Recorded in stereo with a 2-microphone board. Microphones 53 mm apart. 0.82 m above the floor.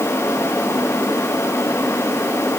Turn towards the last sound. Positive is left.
No sound to turn to.